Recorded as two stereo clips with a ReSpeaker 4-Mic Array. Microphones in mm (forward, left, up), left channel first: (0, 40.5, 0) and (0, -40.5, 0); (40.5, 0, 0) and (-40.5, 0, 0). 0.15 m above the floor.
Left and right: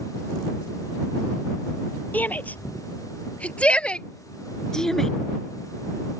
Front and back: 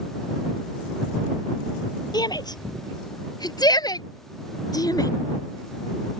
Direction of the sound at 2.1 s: 20° left.